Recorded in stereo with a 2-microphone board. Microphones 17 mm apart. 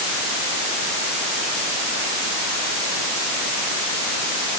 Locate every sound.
Only background noise.